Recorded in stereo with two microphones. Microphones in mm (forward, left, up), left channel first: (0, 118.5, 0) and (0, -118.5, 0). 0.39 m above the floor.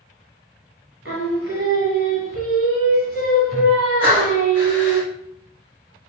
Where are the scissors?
No scissors in this recording.